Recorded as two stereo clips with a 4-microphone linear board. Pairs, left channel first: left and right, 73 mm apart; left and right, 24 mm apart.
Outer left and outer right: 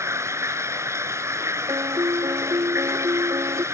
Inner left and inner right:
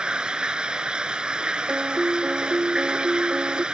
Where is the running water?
40° right (ahead or behind).